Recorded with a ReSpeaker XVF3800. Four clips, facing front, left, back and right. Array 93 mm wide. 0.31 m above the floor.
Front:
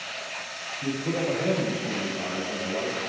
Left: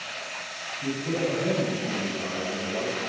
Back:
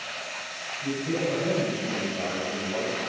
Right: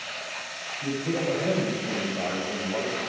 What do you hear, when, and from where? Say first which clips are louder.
0.8 s a man speaking: even, even; 5° right, 1.6 m; by 3.0 s 130° right, 1.9 m